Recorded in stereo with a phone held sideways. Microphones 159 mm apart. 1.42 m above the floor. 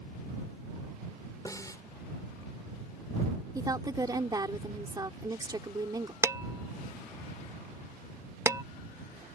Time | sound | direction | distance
1.4 | a snare drum | 20° left (ahead or behind) | ?
3.5 | a woman speaking | 25° right (ahead or behind) | ?
6.2 | dishes clattering | 20° right (ahead or behind) | ?